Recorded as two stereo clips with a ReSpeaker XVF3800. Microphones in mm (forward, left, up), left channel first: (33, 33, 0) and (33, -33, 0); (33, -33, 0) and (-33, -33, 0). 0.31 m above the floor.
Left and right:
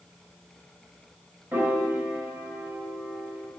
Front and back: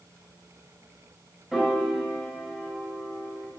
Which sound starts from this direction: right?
A piano, at 1.5 s.